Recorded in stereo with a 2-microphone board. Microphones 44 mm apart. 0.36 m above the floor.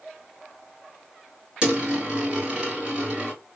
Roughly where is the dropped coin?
Right.